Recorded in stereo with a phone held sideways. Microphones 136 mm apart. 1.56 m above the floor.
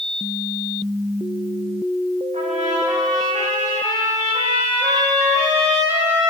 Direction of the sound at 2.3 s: 65° right (ahead or behind).